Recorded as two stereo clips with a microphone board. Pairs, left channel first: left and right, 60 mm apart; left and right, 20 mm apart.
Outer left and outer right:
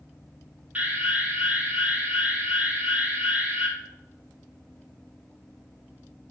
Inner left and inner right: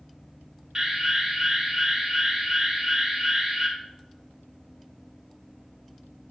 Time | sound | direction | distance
0.8 | an alarm | 20° right (ahead or behind) | 2.5 m